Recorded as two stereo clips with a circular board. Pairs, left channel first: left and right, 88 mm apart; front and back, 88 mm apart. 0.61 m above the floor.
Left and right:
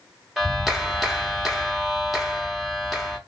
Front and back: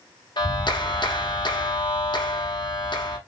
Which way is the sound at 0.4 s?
5° right.